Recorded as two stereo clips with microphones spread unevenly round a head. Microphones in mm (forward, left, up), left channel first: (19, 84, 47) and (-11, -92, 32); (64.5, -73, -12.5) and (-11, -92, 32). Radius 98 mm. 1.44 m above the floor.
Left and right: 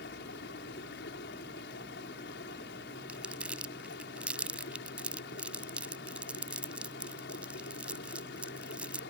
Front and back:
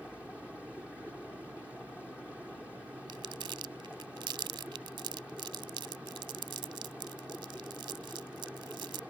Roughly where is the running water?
Left.